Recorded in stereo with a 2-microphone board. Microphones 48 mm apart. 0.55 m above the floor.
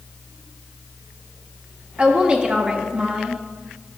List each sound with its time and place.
2.0 s a woman speaking: 25° right (ahead or behind), 0.9 m